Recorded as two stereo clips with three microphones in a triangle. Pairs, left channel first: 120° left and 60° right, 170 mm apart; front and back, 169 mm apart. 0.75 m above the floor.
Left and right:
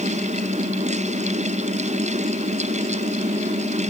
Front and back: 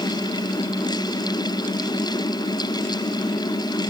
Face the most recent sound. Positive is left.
No sound to turn to.